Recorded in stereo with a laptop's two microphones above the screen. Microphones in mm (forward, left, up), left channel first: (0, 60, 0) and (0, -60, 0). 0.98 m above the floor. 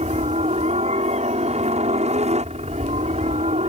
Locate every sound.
0.0 s a helicopter: 60° right (ahead or behind)